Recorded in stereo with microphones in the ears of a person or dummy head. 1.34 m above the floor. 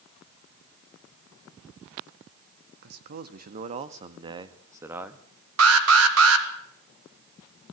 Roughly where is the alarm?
Right.